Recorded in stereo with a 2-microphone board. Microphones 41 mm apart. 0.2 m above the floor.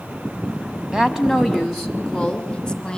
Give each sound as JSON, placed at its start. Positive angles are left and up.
{"t": 0.9, "sound": "a woman speaking", "side_deg": -15, "distance_m": 1.6}